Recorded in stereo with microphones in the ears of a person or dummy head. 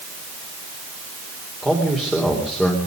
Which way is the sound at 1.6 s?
5° right (ahead or behind).